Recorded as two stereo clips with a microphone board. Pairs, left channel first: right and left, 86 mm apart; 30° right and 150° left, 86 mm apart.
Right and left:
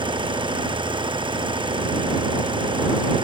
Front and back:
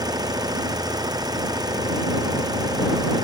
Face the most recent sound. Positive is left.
turn(degrees=110)